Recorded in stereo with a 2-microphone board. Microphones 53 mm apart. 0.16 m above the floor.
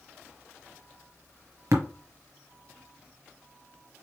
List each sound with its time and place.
1.7 s tapping: 70° right (ahead or behind), 1.3 m